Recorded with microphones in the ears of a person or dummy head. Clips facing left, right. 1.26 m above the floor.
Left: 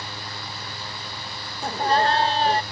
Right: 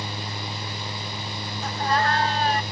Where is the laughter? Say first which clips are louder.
Left 3 dB; 20° left (ahead or behind).